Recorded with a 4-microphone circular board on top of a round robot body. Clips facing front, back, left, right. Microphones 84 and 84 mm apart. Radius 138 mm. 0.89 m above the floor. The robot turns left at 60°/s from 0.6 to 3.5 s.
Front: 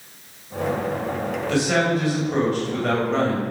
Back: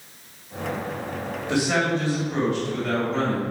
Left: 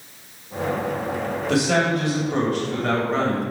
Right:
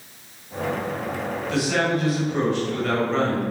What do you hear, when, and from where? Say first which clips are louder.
1.5 s a man speaking: front 1 dB, left 2 dB; 110° left, 5 m; by 3.4 s 5° right, 5 m